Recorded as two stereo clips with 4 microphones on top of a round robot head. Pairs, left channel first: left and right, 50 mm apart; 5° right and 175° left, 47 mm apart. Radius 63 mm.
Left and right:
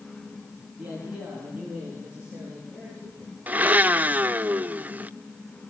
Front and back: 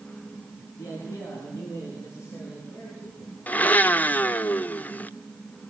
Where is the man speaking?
20° right, 7 m; by 3.4 s 15° right, 10.5 m.